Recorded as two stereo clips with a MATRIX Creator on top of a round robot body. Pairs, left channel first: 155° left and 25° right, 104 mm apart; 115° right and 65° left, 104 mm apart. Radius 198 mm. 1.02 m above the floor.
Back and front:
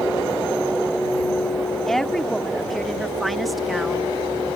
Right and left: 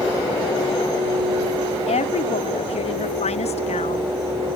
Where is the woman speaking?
115° right; by 4.1 s 110° right.